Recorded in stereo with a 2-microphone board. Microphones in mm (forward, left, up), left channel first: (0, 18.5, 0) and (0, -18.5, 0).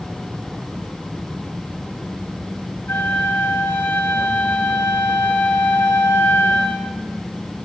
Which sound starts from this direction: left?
A flute, at 2.9 s.